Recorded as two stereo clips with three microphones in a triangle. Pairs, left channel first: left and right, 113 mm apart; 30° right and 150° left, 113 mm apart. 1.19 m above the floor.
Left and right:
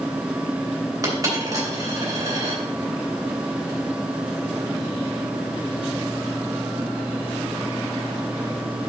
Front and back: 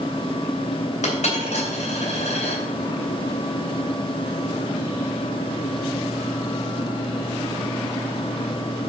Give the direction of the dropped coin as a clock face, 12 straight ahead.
1 o'clock.